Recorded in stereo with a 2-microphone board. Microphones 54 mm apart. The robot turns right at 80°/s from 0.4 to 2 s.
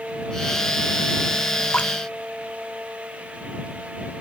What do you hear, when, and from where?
1.7 s dripping: 25° left (ahead or behind); by 1.9 s 40° left (ahead or behind)